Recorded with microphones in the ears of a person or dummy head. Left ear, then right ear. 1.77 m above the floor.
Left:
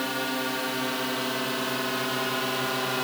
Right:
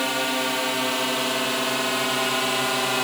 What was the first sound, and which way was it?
A drone, 20° right (ahead or behind).